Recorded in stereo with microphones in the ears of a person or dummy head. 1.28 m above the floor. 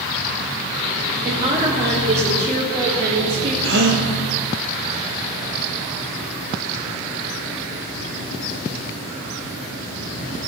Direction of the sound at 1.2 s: 35° right (ahead or behind).